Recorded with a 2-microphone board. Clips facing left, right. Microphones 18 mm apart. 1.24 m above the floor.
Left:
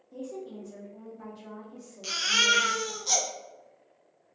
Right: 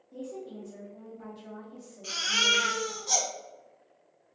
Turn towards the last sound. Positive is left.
turn(degrees=80)